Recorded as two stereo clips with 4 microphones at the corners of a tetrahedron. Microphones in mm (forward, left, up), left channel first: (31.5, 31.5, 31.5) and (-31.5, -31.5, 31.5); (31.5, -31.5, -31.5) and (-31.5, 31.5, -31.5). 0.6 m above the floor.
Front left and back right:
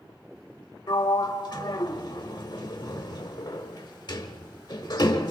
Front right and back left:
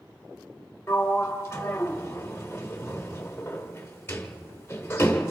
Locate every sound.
0.9 s a sliding door: 15° left, 1.3 m